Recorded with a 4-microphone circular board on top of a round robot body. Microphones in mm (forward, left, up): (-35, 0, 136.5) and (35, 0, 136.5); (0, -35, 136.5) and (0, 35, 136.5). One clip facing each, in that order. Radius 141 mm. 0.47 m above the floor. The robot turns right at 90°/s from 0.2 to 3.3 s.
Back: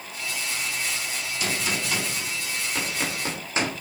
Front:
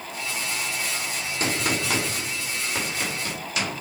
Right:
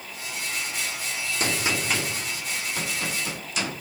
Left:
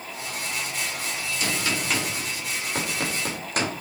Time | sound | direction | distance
1.4 | a gunshot | 50° right | 3 m